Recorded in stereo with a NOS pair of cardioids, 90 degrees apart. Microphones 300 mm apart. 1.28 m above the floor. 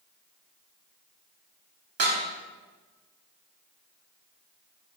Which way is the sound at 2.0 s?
50° right.